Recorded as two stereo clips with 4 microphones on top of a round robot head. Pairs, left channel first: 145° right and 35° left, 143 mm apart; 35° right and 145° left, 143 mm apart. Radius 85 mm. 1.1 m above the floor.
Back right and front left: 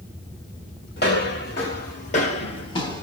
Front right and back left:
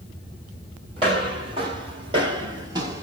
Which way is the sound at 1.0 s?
160° right.